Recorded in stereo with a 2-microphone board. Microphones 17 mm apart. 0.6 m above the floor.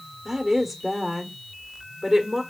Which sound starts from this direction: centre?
A woman speaking, at 0.2 s.